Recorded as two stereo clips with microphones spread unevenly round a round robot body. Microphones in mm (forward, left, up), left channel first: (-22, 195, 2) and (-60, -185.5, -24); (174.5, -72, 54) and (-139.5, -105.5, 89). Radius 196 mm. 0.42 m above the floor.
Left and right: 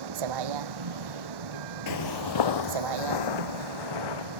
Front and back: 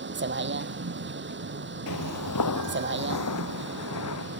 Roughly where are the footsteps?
Ahead left.